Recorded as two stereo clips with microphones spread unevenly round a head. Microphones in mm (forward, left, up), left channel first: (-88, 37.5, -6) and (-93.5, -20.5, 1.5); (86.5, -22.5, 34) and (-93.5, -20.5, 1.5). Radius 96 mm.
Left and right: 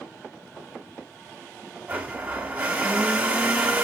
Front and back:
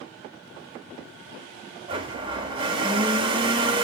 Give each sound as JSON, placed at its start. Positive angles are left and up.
{"t": 1.9, "sound": "a blender", "azimuth_deg": -120, "distance_m": 0.6}